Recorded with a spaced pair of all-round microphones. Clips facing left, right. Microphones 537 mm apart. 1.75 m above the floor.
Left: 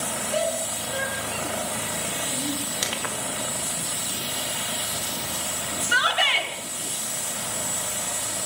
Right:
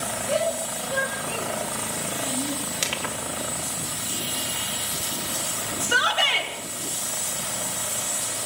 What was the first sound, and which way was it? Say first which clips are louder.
A shout: right 2 dB; 85° right.